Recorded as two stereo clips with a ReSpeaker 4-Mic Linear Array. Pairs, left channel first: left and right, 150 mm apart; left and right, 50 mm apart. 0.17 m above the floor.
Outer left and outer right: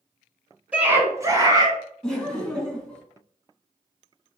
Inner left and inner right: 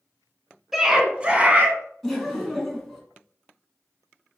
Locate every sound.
0.7 s a scream: 10° right (ahead or behind), 1.5 m; by 1.8 s 25° right (ahead or behind), 1.4 m
2.0 s laughter: 5° left (ahead or behind), 1.6 m